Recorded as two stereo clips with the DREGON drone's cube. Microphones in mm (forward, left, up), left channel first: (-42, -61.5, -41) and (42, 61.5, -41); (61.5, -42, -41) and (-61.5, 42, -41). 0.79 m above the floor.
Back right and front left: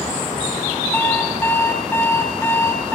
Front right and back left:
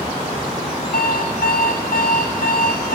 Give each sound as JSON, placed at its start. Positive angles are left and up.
{"t": 0.9, "sound": "an alarm clock", "azimuth_deg": -50, "distance_m": 3.0}